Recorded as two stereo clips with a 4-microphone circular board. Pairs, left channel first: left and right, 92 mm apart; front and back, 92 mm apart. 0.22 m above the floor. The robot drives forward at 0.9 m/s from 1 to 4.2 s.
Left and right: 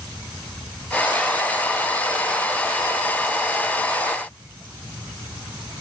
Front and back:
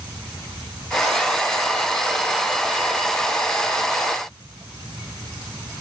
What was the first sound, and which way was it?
Only background noise.